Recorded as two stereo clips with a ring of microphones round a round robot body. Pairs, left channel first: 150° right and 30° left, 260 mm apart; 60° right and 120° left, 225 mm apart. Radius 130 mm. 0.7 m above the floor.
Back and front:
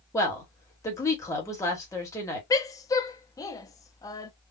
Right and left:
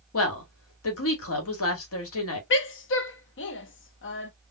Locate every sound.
0.1 s a woman speaking: 70° right, 1.4 m
2.5 s a woman speaking: 75° right, 0.6 m